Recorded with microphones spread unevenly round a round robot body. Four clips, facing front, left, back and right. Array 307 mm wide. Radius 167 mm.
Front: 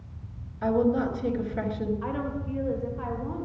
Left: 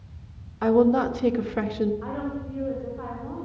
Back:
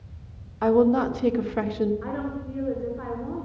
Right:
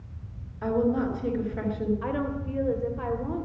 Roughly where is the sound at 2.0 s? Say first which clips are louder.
Right 1 dB, even; behind right.